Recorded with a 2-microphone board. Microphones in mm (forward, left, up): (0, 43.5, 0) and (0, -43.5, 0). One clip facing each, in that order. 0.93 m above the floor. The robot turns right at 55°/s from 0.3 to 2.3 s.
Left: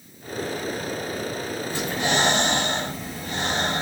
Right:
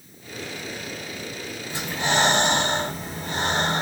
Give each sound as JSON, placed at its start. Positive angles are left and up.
{"t": 1.7, "sound": "breathing", "azimuth_deg": -160, "distance_m": 2.0}